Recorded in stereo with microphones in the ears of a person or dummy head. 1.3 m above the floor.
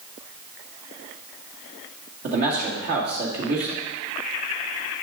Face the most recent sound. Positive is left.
turn(degrees=-50)  # may be behind; listen again after turning